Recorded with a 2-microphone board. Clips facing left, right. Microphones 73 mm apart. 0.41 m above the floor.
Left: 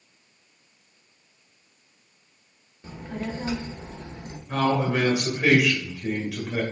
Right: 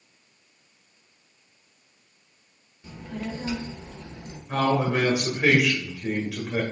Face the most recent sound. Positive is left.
turn(degrees=-15)  # may be behind; listen again after turning